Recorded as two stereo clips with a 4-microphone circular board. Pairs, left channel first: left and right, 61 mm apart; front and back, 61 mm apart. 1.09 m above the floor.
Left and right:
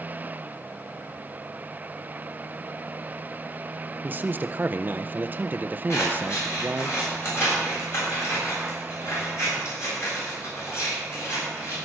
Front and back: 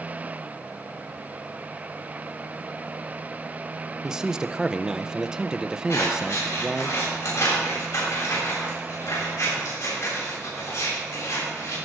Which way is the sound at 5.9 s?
45° left.